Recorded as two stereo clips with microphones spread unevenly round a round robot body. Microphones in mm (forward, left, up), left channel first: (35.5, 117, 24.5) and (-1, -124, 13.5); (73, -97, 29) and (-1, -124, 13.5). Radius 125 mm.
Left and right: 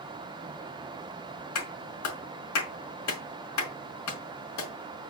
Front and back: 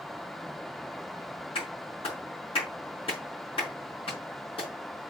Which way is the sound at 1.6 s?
65° left.